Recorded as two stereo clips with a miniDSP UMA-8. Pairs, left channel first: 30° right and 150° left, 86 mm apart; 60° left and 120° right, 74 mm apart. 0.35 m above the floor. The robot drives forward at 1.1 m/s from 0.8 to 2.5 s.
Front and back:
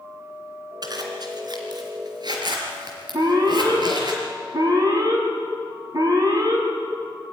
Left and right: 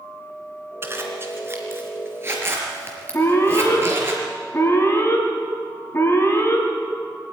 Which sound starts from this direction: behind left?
An alarm, at 3.1 s.